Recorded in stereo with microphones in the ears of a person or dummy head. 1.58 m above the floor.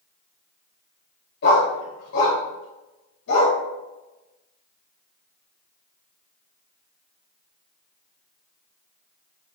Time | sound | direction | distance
1.4 | a dog barking | 60° left (ahead or behind) | 2.5 m